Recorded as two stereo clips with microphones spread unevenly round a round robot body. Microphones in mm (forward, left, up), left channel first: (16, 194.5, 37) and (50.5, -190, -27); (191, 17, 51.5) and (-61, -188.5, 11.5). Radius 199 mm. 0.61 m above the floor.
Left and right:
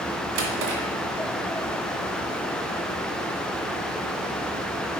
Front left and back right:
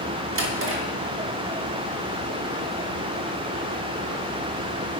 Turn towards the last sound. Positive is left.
turn(degrees=-90)